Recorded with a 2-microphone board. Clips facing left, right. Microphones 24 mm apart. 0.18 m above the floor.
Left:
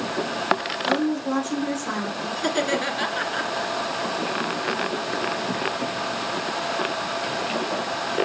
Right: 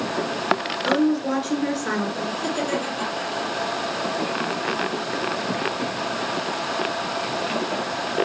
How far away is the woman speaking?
About 2.5 m.